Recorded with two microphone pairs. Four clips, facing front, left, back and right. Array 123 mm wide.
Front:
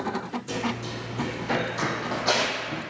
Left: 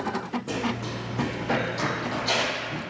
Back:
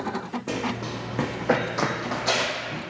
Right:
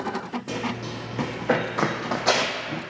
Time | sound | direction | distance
0.5 | running footsteps | straight behind | 0.9 m